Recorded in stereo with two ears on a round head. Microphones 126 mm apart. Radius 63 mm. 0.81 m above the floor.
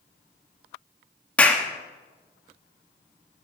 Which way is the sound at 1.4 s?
10° left (ahead or behind).